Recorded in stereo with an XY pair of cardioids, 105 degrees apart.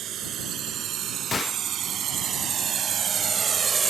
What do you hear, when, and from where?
0.0 s a drone: 65° right; by 3.9 s 35° right
1.3 s a gunshot: 40° left